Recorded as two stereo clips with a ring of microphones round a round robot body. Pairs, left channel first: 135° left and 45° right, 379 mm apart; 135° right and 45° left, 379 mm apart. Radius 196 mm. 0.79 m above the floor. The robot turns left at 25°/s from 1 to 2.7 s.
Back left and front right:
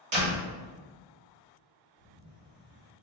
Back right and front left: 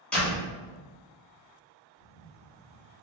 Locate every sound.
0.1 s a door slam: 50° right, 1.4 m
2.0 s a camera shutter: 60° right, 1.5 m; by 2.9 s 75° right, 1.5 m